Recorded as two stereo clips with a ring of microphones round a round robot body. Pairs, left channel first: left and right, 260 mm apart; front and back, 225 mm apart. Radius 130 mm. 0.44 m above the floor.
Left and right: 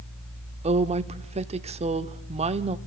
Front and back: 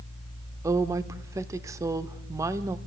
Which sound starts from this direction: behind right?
A woman speaking, at 0.6 s.